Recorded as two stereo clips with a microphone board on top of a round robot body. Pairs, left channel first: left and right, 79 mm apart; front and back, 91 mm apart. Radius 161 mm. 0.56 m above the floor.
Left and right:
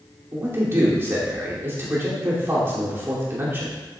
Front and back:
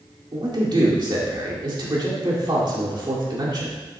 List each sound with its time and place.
0.3 s a man speaking: 150° right, 2.5 m